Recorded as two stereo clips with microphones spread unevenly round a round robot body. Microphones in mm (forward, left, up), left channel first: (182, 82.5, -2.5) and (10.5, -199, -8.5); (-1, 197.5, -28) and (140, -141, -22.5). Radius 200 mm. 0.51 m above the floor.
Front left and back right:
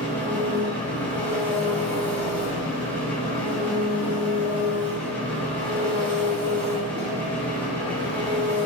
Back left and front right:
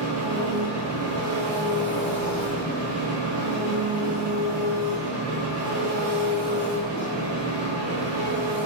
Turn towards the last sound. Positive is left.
turn(degrees=-25)